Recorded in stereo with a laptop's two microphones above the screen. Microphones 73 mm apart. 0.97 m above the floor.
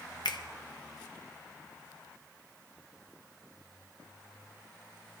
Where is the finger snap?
75° left (ahead or behind), 0.9 m.